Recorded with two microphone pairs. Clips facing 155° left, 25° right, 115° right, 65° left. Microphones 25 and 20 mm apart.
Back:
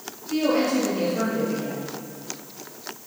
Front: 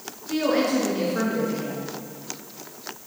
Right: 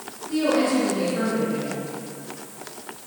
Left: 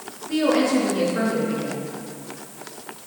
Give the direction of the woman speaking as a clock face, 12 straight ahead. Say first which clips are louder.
Even, left 1 dB; 12 o'clock.